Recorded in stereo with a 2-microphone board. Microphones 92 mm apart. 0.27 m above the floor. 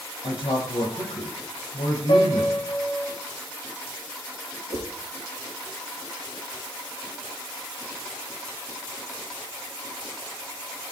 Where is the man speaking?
80° left, 8 m.